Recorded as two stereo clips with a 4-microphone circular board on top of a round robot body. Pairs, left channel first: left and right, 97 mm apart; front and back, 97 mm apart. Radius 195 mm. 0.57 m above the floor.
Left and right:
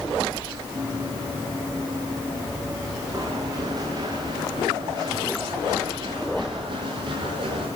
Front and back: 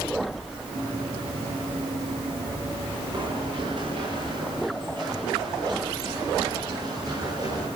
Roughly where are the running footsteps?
Behind right.